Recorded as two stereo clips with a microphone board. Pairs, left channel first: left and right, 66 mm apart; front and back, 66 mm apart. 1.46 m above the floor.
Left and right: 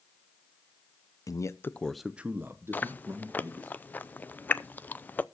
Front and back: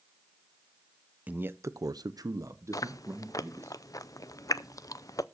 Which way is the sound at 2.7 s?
25° left.